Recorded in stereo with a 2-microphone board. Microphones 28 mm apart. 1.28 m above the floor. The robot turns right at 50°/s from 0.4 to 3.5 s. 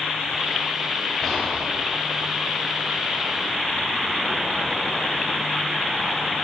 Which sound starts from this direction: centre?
Whispering, at 1.2 s.